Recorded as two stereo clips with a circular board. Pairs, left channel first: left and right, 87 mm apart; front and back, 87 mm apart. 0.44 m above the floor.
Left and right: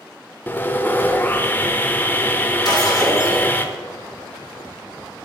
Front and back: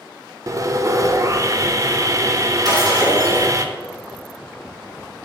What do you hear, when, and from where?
0.5 s sawing: 150° left, 0.6 m
2.6 s breaking glass: 135° left, 3 m